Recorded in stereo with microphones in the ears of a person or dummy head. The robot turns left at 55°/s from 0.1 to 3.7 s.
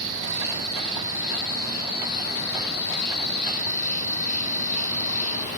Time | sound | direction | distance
0.0 | an insect | 110° right | 2.5 m